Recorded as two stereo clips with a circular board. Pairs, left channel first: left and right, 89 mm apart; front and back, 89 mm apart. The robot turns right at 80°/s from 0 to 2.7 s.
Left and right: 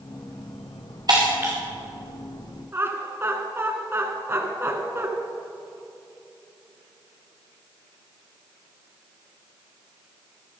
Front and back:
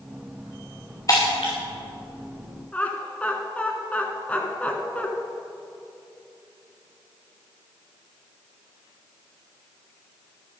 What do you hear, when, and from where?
1.1 s breaking glass: 50° right, 3.5 m; by 1.5 s 15° right, 3.5 m
2.7 s laughter: 60° right, 1.5 m